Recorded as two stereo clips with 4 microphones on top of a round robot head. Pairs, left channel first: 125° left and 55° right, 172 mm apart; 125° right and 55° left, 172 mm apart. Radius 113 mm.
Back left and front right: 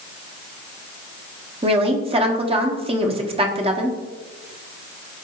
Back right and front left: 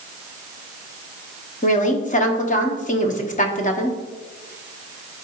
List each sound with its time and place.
1.6 s a woman speaking: 100° right, 1.4 m